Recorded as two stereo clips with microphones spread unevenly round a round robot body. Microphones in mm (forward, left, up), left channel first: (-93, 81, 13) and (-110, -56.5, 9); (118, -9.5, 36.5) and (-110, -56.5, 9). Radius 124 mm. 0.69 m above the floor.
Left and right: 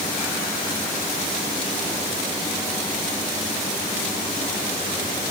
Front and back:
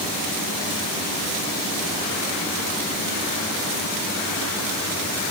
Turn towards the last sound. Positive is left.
No sound to turn to.